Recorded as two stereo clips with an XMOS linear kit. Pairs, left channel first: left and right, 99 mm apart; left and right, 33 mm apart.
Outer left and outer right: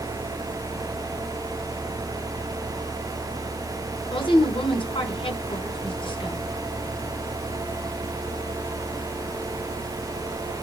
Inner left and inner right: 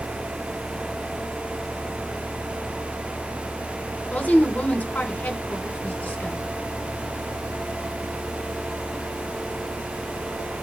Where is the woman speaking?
60° left (ahead or behind), 3.5 m.